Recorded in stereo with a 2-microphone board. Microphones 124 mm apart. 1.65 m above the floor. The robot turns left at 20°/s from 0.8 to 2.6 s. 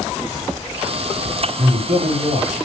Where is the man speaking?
70° right (ahead or behind), 1.6 m; by 2.5 s 80° right, 1.6 m.